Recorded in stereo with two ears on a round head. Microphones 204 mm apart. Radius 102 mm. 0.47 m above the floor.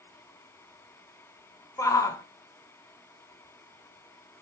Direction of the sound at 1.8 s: 15° left (ahead or behind).